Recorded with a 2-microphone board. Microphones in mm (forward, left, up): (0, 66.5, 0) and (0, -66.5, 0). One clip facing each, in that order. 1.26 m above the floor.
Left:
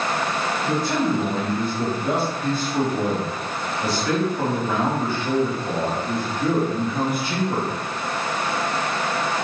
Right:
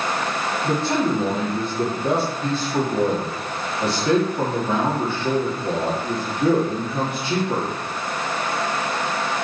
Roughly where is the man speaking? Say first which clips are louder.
Right 2 dB; right.